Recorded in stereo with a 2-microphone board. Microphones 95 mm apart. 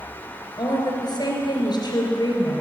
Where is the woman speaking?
50° left (ahead or behind), 3 m.